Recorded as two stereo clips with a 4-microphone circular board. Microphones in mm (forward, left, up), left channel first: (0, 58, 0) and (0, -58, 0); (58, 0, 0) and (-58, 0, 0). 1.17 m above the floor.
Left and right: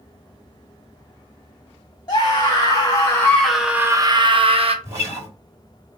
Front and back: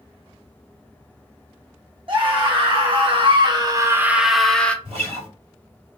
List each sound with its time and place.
2.1 s a scream: 140° left, 1.5 m; by 4.8 s 80° right, 1.0 m
4.8 s a guitar: 155° right, 3.5 m